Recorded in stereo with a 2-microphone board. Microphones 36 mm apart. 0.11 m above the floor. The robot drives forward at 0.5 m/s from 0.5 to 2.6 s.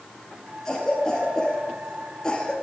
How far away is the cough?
About 3 m.